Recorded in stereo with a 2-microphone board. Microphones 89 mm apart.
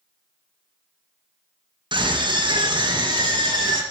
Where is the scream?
65° right (ahead or behind), 2.5 m; by 3.8 s 50° right (ahead or behind), 5 m.